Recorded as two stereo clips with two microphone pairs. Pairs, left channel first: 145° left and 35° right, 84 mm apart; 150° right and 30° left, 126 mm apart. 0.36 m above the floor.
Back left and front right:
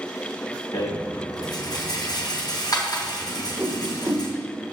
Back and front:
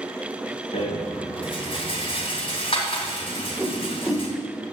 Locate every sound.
0.7 s a rattle: 170° left, 3 m
3.3 s a whoosh: 60° right, 1.6 m